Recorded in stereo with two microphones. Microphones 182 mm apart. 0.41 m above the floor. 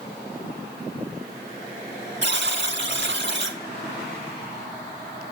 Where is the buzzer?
85° right, 1.5 m.